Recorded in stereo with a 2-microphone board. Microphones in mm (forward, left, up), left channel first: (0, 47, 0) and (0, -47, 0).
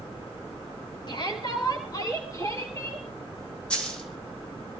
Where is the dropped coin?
10° left (ahead or behind), 4 m.